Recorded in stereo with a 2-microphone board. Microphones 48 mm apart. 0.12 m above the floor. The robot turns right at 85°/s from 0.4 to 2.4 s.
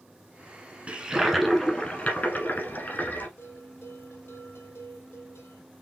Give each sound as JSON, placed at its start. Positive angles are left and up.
{"t": 0.9, "sound": "a toilet flushing", "azimuth_deg": -40, "distance_m": 1.6}
{"t": 3.4, "sound": "a bell", "side_deg": 55, "distance_m": 1.6}